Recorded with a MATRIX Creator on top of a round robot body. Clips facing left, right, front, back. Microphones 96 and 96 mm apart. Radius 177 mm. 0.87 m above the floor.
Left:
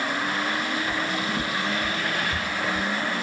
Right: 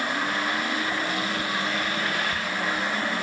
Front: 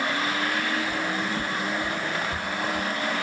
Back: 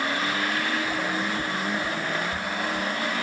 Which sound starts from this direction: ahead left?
Footsteps, at 0.9 s.